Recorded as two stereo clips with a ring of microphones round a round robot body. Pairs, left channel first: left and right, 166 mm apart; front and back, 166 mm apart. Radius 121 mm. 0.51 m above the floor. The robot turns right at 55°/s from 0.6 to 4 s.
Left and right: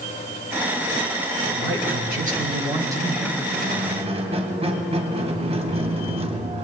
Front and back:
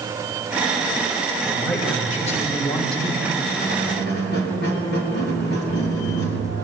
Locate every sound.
1.4 s a man speaking: 100° right, 2.5 m; by 3.4 s 5° left, 2.5 m
3.5 s a squeak: 60° right, 2 m; by 6.7 s 35° right, 2 m